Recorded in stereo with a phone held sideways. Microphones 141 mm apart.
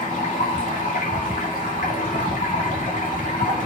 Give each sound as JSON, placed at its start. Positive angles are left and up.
{"t": 0.0, "sound": "running water", "side_deg": 70, "distance_m": 2.5}